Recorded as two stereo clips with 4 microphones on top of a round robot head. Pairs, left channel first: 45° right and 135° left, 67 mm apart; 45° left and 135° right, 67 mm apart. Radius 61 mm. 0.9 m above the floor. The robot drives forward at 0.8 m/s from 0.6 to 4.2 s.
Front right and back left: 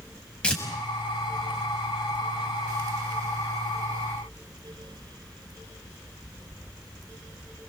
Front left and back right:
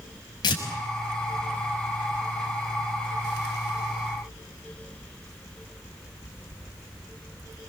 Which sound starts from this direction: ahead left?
Tearing paper, at 0.4 s.